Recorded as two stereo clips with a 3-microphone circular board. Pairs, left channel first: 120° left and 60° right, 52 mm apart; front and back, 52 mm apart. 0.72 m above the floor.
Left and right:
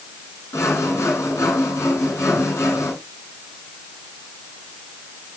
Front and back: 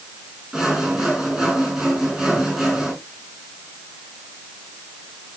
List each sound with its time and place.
0.5 s sawing: 100° left, 6 m